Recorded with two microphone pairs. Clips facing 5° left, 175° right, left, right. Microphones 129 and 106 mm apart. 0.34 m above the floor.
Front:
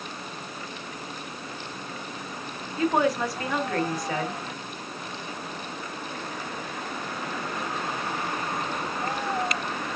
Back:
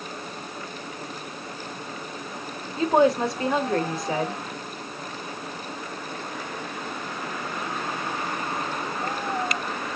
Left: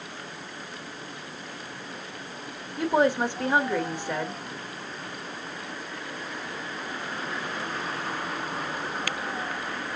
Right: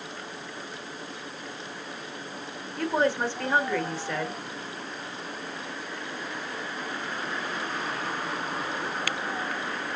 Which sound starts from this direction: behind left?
A woman speaking, at 2.8 s.